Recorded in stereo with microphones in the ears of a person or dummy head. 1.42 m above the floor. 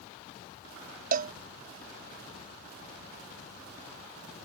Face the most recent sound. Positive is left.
turn(degrees=-45)  # may be behind; listen again after turning